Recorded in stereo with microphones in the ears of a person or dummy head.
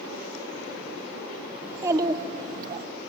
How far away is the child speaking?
About 1.3 m.